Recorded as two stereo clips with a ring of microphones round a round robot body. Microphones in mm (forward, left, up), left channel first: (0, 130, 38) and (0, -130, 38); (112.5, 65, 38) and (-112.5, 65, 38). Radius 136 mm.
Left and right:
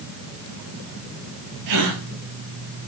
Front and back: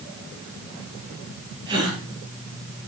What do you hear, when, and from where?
1.7 s a gasp: 105° right, 3 m